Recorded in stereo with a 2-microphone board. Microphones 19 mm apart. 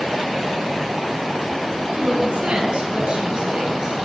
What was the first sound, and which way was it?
A woman speaking, 60° right (ahead or behind).